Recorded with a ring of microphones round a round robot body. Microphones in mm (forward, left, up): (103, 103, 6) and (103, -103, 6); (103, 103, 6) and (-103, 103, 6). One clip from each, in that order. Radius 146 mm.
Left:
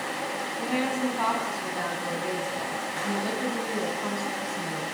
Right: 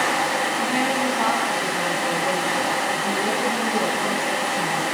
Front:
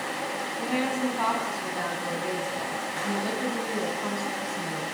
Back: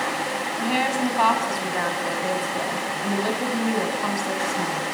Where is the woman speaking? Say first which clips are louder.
Right 6 dB, back 5 dB; 160° left, 5 m.